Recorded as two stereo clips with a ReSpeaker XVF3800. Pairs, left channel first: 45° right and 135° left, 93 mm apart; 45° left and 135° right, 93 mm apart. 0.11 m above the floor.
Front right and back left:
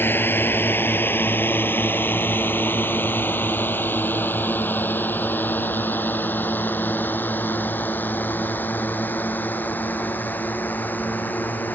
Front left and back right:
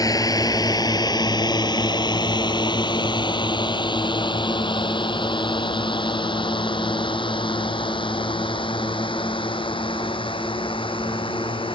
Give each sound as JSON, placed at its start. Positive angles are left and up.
{"t": 0.0, "sound": "a drone", "azimuth_deg": 15}